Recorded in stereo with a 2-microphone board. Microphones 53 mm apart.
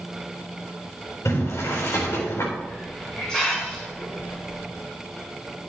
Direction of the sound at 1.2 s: 60° left (ahead or behind).